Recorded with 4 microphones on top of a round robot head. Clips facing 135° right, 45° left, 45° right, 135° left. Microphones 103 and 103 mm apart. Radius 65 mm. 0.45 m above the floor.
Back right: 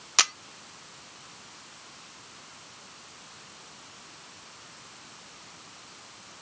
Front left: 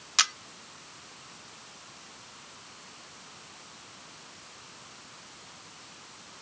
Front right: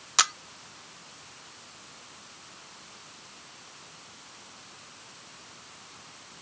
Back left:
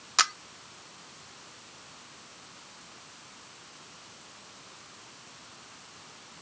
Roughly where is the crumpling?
No crumpling in this recording.